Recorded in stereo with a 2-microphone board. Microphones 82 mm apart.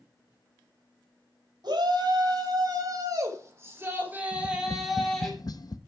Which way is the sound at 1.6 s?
60° right (ahead or behind).